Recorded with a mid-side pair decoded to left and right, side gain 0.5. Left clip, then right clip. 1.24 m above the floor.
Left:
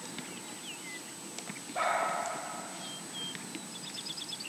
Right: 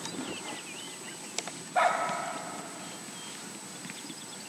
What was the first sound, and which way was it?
A dog barking, 40° right.